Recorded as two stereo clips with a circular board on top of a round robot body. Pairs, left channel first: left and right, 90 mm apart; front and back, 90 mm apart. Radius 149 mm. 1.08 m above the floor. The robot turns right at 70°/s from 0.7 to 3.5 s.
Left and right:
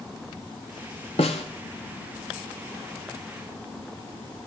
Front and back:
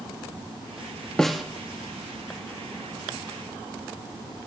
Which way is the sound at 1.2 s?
80° left.